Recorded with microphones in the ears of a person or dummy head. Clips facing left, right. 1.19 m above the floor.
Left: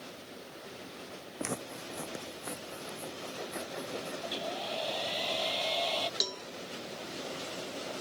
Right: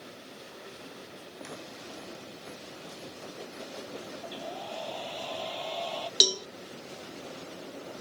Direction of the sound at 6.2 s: 40° right (ahead or behind).